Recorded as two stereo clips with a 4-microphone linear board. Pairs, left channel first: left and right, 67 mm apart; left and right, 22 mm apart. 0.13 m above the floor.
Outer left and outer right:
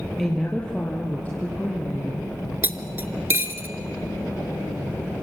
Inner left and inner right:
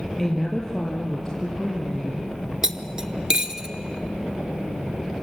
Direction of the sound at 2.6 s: 30° right (ahead or behind).